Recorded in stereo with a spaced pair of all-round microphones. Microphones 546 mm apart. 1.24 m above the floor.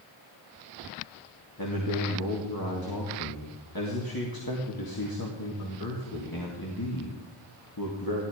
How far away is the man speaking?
About 2.5 m.